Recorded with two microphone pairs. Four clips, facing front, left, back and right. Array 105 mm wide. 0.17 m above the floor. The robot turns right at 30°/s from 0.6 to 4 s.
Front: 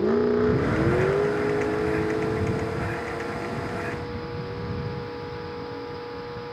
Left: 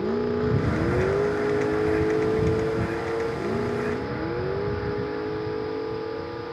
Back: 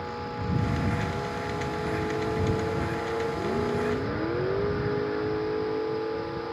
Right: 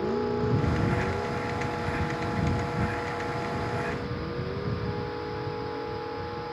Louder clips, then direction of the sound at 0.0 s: Left 3 dB, front 13 dB; 5° left.